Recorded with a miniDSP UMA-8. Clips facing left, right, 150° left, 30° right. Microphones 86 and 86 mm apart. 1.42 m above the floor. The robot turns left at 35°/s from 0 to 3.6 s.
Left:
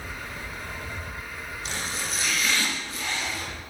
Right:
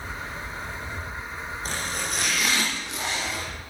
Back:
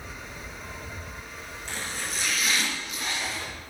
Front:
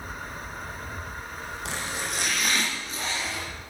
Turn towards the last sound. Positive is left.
turn(degrees=-110)